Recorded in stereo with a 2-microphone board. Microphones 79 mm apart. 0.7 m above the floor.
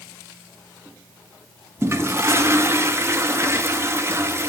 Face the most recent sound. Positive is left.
turn(degrees=-30)  # may be behind; listen again after turning